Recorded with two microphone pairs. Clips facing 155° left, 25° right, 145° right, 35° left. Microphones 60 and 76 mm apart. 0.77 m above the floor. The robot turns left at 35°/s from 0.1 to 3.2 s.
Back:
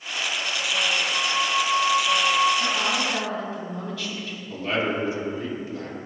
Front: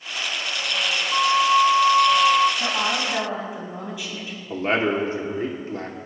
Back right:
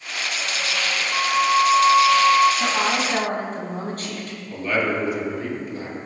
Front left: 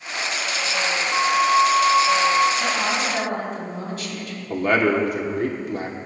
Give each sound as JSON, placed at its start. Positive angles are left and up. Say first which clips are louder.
{"t": 1.1, "sound": "a flute", "louder": "front 6 dB, front left 1 dB", "azimuth_deg": -40, "distance_m": 0.6}
{"t": 2.6, "sound": "a woman speaking", "louder": "front 1 dB, back right 1 dB", "azimuth_deg": -75, "distance_m": 5.0}
{"t": 4.5, "sound": "a man speaking", "louder": "front 4 dB, front left 4 dB", "azimuth_deg": 15, "distance_m": 2.0}